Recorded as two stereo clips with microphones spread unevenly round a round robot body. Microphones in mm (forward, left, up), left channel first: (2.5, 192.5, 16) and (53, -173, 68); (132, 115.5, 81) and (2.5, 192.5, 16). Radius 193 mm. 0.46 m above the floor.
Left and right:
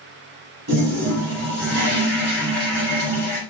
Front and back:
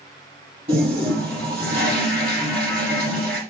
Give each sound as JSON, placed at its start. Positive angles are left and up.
{"t": 0.7, "sound": "a toilet flushing", "azimuth_deg": -145, "distance_m": 5.0}